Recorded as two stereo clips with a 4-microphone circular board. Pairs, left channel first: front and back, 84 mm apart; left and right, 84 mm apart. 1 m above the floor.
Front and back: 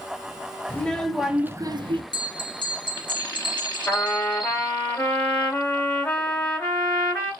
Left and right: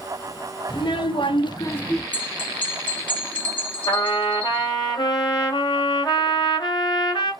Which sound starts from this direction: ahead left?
A trumpet, at 3.9 s.